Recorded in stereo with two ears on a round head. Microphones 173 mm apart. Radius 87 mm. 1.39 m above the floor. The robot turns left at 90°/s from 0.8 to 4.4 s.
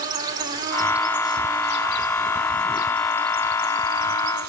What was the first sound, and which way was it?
An insect, 160° right.